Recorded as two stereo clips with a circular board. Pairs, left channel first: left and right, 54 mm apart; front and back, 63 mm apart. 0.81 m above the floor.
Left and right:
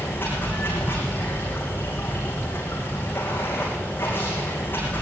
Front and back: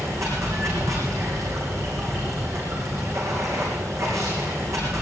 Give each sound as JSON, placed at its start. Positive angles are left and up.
{"t": 0.0, "sound": "running water", "azimuth_deg": 145, "distance_m": 7.5}